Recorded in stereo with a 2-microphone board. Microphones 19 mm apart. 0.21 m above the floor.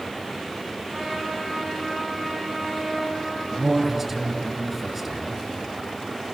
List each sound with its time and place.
0.9 s a trumpet: 55° right (ahead or behind), 9 m
3.5 s a man speaking: 15° right (ahead or behind), 2.5 m